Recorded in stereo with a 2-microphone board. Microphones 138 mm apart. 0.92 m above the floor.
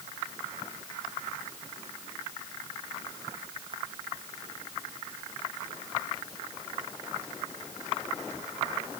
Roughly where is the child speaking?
No child speaking in this recording.